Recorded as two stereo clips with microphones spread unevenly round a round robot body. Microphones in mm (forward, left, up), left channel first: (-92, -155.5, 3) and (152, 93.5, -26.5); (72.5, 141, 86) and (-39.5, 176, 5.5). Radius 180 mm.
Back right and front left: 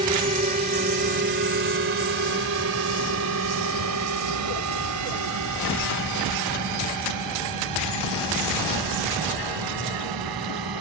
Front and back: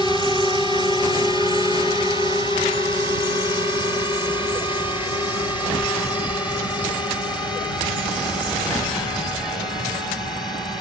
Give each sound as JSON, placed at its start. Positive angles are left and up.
{"t": 0.0, "sound": "a drone", "azimuth_deg": 75}